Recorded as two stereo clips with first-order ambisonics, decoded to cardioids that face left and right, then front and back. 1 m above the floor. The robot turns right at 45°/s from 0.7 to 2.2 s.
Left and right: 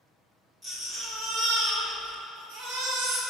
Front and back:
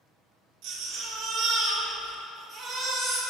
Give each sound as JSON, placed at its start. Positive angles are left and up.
{"t": 0.6, "sound": "a baby crying", "azimuth_deg": -165, "distance_m": 2.0}